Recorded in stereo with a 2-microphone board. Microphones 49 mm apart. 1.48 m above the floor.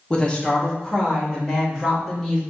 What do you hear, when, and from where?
0.1 s a woman speaking: 20° left (ahead or behind), 1.0 m; by 2.4 s 5° left (ahead or behind), 2.5 m